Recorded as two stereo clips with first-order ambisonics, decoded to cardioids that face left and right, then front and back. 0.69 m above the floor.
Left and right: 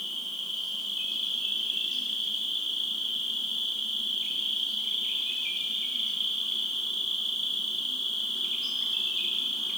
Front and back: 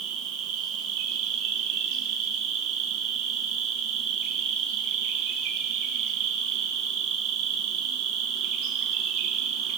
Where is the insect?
170° right, 3.5 m.